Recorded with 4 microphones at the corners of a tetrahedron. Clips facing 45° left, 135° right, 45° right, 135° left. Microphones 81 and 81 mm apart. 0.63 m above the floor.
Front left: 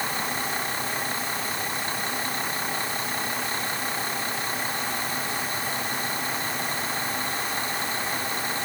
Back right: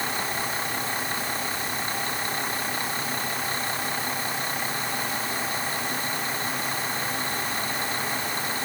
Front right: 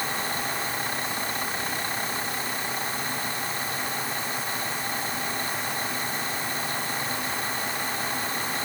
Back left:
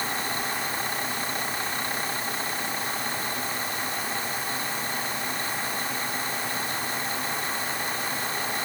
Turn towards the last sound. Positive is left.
No sound to turn to.